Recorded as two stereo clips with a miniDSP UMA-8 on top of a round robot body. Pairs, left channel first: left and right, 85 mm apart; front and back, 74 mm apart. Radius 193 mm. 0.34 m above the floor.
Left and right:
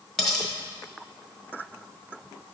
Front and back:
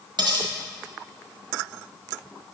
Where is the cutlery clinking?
175° left, 1.3 m.